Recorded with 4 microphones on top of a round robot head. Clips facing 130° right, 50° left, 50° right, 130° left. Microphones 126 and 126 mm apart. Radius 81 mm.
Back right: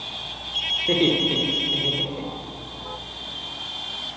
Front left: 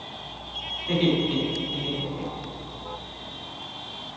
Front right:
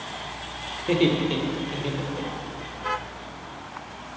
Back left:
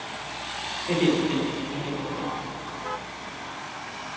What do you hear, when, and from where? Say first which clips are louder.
0.8 s laughter: back right 2 dB, front right 1 dB; 110° right, 1.9 m; by 2.6 s 95° right, 2.5 m